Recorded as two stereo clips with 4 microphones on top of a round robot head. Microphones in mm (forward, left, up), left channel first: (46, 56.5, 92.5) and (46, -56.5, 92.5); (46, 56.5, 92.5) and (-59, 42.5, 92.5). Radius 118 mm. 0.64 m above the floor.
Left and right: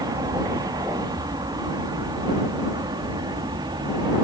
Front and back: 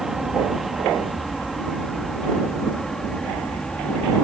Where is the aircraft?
85° right; by 4.2 s 70° right.